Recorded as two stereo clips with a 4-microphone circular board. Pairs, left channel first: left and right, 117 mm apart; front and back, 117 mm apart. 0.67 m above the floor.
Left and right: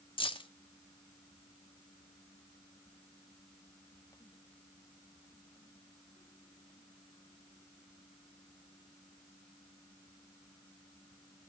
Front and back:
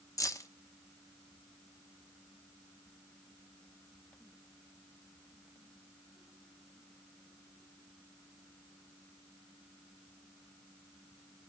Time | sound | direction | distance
0.2 | keys jangling | 55° left | 0.8 m